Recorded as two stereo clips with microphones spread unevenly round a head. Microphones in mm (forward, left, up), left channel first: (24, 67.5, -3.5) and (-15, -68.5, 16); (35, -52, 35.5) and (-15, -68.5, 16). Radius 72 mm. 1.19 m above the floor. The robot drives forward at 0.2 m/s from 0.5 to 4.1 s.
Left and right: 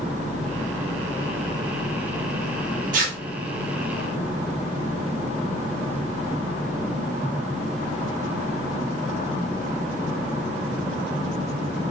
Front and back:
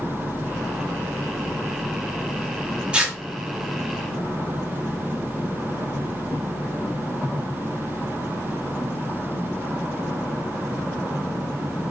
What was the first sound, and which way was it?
Tearing paper, 85° right.